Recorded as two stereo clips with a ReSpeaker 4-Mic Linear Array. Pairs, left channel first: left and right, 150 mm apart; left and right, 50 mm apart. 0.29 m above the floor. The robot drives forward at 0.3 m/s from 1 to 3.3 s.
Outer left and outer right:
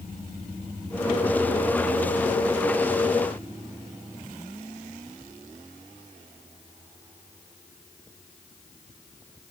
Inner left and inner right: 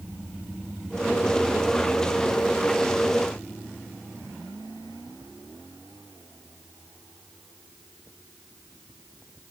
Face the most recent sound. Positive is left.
No sound to turn to.